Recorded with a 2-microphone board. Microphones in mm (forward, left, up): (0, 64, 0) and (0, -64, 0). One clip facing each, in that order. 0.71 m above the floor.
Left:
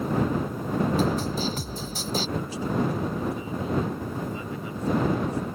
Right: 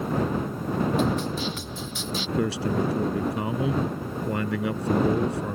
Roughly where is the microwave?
No microwave in this recording.